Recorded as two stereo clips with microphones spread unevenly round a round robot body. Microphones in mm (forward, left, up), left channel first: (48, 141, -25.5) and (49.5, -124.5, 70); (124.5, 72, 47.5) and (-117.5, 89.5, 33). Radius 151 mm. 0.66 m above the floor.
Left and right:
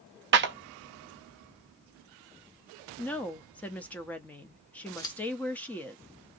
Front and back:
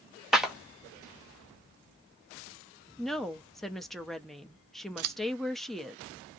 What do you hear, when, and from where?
0.3 s a clap: 110° right, 0.7 m
3.0 s a woman speaking: 90° left, 0.6 m
5.0 s scissors: 160° left, 0.6 m